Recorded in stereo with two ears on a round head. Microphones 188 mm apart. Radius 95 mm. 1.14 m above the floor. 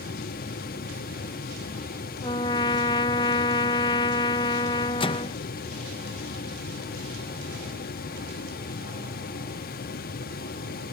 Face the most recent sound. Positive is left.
turn(degrees=25)  # may be behind; listen again after turning